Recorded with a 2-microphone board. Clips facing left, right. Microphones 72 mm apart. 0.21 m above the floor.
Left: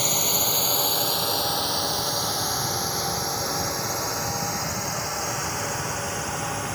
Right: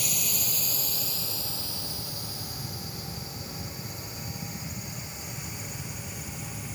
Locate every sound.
0.0 s a drone: 50° left (ahead or behind); by 6.8 s 70° left (ahead or behind)